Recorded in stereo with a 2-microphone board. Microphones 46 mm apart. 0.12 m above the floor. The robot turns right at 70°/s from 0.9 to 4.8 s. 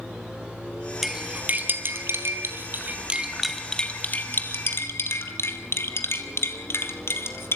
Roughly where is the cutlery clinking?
Centre.